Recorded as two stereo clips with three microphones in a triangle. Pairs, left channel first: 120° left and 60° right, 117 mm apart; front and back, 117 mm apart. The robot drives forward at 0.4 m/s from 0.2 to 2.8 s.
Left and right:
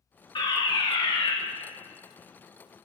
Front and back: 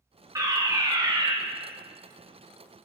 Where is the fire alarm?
135° left, 1.9 m; by 1.3 s 145° left, 2 m.